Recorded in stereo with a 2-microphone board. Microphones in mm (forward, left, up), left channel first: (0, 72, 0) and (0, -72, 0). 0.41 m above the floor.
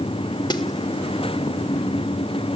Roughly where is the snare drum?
Left.